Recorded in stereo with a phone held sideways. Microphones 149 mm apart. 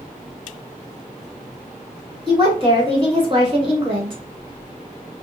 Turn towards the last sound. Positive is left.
turn(degrees=-35)  # may be behind; listen again after turning